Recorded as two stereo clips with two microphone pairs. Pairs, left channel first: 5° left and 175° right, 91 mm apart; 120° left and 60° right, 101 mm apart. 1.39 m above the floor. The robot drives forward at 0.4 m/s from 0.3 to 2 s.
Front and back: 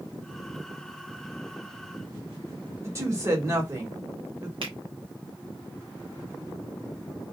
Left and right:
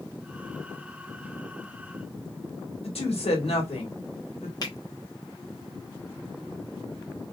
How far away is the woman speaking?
About 1.5 m.